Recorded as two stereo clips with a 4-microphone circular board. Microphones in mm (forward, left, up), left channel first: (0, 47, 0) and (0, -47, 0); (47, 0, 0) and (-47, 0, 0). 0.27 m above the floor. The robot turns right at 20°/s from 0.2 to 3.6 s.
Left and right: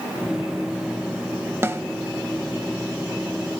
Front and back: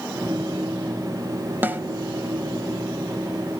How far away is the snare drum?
About 0.8 m.